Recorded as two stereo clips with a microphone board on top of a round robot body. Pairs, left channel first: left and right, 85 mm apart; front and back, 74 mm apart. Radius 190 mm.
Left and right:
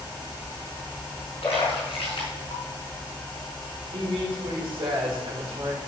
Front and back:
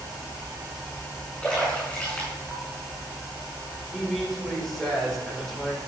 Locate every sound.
1.4 s a splash: 80° left, 4.5 m
3.9 s a woman speaking: 90° right, 4 m